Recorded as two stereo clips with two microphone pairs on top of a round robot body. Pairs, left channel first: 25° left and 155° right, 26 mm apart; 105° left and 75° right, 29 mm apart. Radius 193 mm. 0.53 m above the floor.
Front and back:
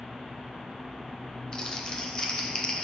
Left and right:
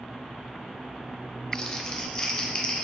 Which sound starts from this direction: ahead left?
Crumpling, at 1.5 s.